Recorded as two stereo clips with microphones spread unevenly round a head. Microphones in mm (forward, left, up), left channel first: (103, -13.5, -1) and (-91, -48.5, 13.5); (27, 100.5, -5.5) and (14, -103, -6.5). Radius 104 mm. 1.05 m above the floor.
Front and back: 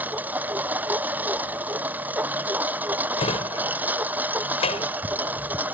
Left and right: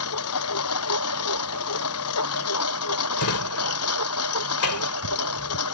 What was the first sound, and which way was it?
A lawn mower, 110° left.